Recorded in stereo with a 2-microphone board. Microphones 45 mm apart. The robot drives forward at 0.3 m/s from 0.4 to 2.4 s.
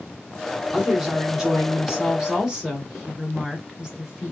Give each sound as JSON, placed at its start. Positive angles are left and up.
{"t": 0.7, "sound": "a woman speaking", "side_deg": -15, "distance_m": 1.2}